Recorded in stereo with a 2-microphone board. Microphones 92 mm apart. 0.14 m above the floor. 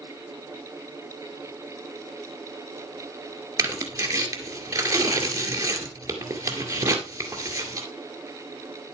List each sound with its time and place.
3.6 s tearing paper: 35° right (ahead or behind), 2 m